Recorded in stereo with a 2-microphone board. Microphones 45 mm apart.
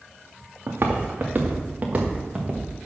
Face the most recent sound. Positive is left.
turn(degrees=-15)  # may be behind; listen again after turning